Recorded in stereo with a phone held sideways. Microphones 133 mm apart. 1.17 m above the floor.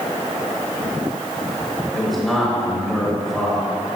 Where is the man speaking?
Centre (ahead or behind), 1.5 m.